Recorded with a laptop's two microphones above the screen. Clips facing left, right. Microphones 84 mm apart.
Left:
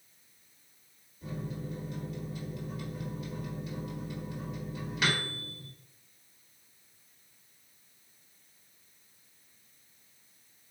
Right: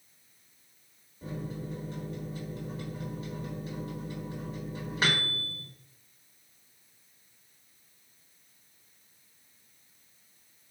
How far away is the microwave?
About 1.0 m.